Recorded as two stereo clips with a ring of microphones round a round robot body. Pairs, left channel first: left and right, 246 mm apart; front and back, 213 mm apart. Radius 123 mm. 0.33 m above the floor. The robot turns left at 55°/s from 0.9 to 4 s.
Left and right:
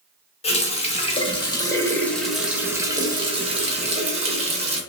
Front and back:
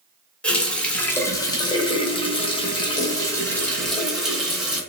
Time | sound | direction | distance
0.4 | a running tap | 75° left | 0.5 m